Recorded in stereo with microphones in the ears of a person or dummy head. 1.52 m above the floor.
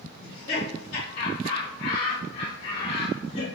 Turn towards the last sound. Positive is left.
turn(degrees=40)  # may be behind; listen again after turning